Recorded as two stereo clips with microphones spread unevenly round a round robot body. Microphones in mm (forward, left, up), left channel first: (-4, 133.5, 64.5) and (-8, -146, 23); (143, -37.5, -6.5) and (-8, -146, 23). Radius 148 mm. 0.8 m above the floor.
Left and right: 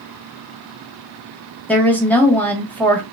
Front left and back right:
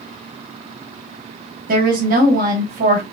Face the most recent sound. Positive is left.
turn(degrees=180)